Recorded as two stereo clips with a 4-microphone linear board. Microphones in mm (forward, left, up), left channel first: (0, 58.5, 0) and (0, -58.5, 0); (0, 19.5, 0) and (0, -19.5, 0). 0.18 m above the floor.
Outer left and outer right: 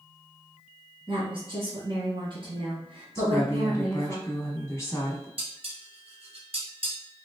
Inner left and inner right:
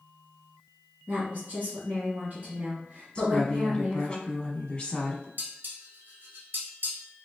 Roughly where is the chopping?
No chopping in this recording.